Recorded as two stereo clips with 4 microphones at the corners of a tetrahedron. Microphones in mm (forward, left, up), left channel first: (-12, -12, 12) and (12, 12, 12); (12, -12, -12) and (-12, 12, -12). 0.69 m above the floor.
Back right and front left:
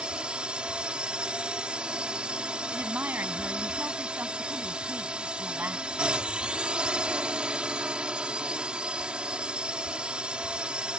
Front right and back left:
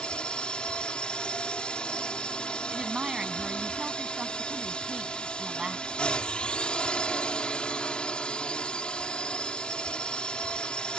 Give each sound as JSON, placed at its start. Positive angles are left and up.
{"t": 0.0, "sound": "a drone", "azimuth_deg": 0}
{"t": 2.7, "sound": "a woman speaking", "azimuth_deg": 65}